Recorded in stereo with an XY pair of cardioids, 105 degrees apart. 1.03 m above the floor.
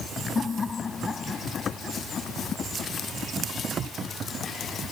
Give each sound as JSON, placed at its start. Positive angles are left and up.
{"t": 0.3, "sound": "laughter", "azimuth_deg": 35}